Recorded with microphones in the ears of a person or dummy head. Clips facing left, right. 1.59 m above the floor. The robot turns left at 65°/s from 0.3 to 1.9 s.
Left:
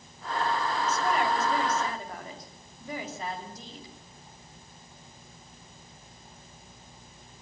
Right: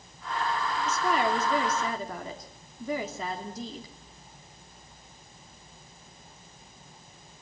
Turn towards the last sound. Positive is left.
turn(degrees=-115)